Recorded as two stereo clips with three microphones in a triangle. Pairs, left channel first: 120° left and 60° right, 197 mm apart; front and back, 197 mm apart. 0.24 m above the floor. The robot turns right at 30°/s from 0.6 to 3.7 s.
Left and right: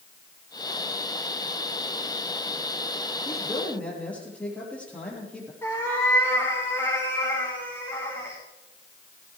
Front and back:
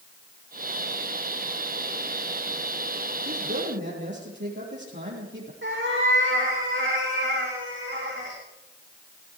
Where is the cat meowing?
165° right, 6 m.